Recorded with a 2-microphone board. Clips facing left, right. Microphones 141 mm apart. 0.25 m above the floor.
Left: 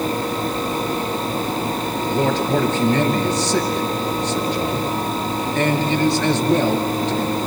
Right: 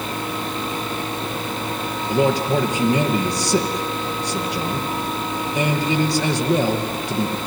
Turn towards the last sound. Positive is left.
turn(degrees=-10)  # may be behind; listen again after turning